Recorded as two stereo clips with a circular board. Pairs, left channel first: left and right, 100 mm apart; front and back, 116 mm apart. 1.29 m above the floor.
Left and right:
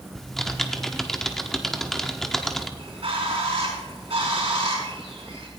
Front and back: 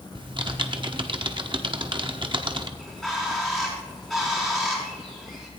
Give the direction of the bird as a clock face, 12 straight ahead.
3 o'clock.